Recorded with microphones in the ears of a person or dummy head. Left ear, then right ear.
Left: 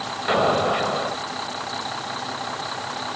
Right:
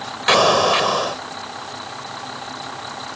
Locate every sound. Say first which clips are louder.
0.3 s an explosion: right 6 dB; 85° right